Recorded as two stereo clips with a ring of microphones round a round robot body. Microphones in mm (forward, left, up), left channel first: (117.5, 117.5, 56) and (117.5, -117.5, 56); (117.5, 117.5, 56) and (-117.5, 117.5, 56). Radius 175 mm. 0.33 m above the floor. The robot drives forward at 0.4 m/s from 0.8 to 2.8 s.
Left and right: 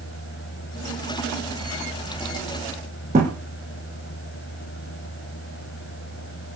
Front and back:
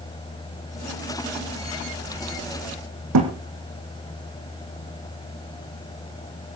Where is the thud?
160° right, 2.5 m.